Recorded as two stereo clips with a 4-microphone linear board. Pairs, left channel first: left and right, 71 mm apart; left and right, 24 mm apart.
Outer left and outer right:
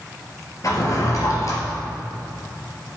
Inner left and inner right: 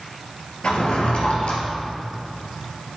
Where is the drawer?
50° left (ahead or behind), 3 m.